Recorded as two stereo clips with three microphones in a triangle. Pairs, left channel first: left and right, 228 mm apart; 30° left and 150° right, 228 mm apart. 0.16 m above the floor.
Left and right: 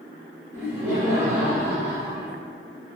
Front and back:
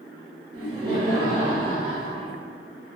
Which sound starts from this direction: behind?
Laughter, at 0.5 s.